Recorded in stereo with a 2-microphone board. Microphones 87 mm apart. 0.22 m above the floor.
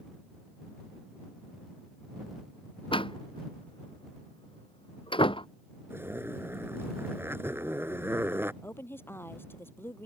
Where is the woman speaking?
25° left (ahead or behind).